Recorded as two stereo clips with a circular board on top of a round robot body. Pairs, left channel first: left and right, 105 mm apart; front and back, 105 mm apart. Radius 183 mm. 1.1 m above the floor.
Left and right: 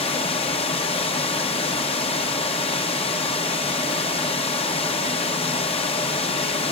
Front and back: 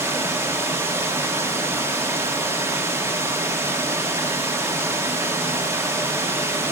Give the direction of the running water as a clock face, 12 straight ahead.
8 o'clock.